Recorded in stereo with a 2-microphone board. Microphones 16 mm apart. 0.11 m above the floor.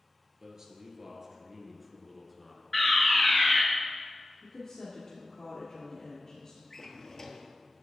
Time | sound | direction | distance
0.4 | a man speaking | 35° right (ahead or behind) | 1.7 m
2.7 | a fire alarm | 10° left (ahead or behind) | 2.5 m
4.4 | a woman speaking | 45° left (ahead or behind) | 1.6 m
6.7 | a drawer | 35° left (ahead or behind) | 0.8 m